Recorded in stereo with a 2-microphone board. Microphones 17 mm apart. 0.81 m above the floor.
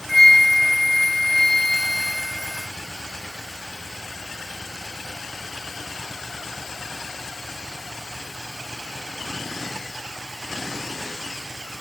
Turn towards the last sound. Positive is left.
turn(degrees=20)  # may be behind; listen again after turning